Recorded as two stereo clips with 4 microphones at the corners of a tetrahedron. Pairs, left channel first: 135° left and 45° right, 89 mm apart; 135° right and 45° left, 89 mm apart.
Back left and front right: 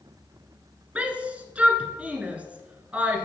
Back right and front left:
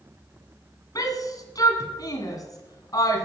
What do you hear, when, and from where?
0.9 s a shout: 115° right, 1.7 m